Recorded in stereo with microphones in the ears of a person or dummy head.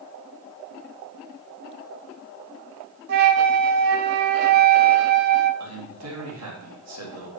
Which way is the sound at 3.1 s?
55° right (ahead or behind).